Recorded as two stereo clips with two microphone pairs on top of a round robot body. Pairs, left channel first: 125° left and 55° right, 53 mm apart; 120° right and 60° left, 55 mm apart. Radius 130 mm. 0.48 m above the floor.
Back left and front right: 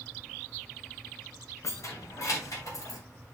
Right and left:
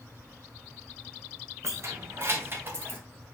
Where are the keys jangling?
95° left, 2.5 m; by 3.0 s 110° left, 3 m.